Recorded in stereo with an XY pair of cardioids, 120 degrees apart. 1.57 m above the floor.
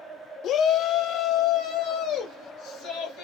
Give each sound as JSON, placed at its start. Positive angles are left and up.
{"t": 0.4, "sound": "a shout", "azimuth_deg": 60, "distance_m": 0.6}